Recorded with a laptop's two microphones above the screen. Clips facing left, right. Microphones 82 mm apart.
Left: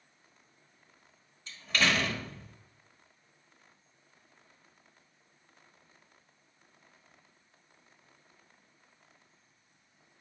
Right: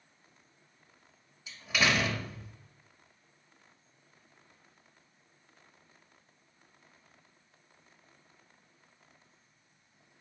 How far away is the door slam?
About 1.3 m.